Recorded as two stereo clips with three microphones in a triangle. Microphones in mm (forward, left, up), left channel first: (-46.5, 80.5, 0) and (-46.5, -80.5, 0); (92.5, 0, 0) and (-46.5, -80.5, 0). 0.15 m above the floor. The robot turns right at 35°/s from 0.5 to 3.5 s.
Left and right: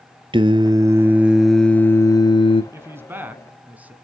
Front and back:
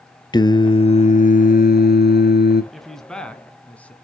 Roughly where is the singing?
Ahead right.